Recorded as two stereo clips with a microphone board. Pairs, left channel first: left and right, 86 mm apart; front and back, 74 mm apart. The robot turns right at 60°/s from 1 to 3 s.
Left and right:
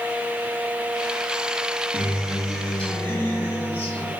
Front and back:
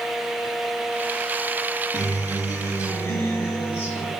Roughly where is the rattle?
No rattle in this recording.